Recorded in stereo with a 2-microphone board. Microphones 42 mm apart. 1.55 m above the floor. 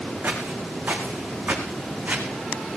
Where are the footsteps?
50° right (ahead or behind), 5 m; by 2.3 s 35° right (ahead or behind), 4 m.